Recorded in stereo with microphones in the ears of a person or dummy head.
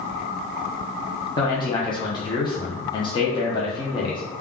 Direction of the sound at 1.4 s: 20° left (ahead or behind).